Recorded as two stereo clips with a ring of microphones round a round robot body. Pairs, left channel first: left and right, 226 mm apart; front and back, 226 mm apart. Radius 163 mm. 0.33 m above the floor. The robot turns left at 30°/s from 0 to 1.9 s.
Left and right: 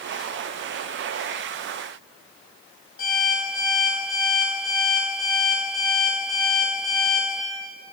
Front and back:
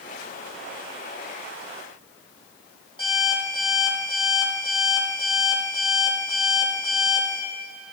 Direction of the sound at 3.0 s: 65° left.